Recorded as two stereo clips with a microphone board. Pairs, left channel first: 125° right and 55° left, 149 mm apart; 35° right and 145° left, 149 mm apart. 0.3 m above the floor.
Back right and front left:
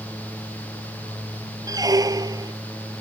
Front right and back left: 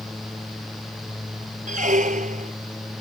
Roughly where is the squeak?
Behind left.